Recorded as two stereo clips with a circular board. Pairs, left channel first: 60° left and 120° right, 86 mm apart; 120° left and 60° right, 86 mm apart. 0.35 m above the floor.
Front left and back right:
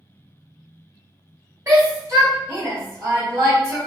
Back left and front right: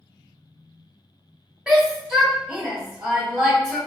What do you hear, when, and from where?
1.7 s a shout: 135° right, 1.4 m